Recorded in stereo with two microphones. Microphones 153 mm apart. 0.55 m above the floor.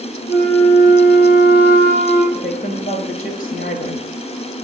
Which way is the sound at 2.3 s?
60° left (ahead or behind).